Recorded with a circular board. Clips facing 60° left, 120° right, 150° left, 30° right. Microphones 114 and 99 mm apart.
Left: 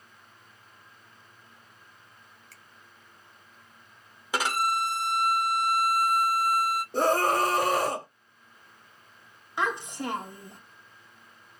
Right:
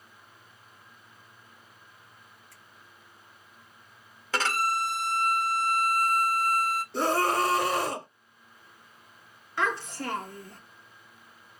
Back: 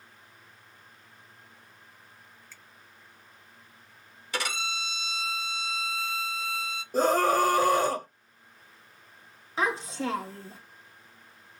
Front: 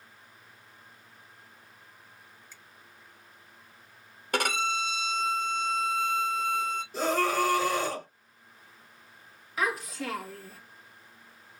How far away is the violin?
About 0.7 m.